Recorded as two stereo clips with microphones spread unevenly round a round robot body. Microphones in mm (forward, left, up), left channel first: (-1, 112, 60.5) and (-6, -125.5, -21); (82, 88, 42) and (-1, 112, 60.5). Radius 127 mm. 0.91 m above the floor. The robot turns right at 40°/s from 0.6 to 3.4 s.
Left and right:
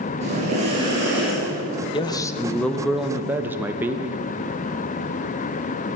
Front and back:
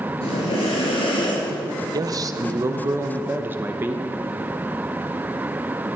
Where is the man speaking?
175° left, 0.6 m; by 4.2 s 125° right, 0.6 m.